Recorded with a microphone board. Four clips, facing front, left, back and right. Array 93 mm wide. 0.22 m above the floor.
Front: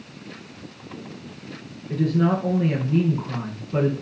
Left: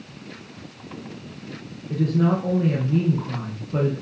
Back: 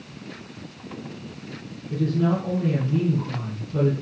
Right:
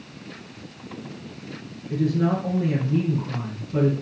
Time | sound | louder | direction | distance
1.9 | a woman speaking | left 1 dB, front 2 dB | 35° left | 3 m